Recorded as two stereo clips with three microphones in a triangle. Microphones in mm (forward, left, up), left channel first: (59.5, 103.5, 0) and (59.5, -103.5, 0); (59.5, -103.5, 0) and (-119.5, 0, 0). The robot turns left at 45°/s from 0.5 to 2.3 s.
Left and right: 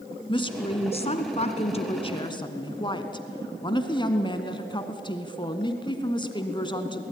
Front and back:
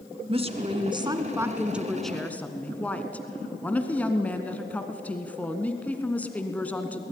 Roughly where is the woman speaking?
Behind left.